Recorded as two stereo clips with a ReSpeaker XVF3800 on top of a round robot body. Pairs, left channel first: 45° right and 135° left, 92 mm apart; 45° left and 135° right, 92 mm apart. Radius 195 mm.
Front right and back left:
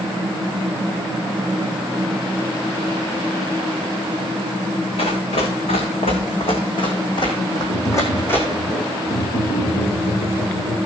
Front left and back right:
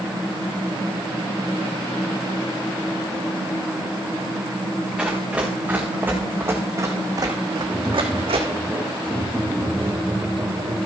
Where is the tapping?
60° right, 2 m.